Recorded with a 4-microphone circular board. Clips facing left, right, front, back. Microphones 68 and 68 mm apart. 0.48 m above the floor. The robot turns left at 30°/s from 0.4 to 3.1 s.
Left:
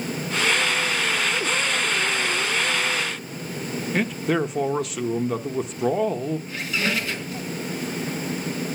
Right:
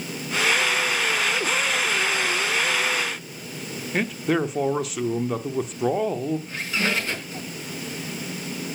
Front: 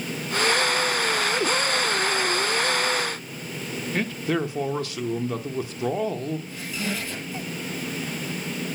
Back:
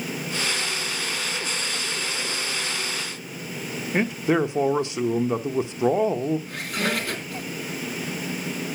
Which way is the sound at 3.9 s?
175° right.